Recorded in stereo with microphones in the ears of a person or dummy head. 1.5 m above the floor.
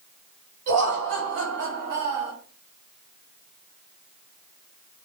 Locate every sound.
0.7 s laughter: 55° right (ahead or behind), 1.4 m; by 2.3 s 10° right (ahead or behind), 0.7 m